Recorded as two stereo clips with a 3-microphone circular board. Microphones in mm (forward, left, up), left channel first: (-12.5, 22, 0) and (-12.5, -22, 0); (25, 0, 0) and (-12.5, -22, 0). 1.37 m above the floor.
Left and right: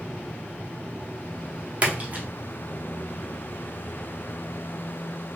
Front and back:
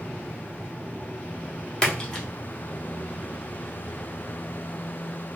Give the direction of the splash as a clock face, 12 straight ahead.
1 o'clock.